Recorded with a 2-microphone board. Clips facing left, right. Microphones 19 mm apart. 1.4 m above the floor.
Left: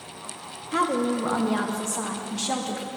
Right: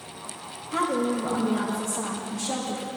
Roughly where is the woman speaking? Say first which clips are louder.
Left 1 dB; left.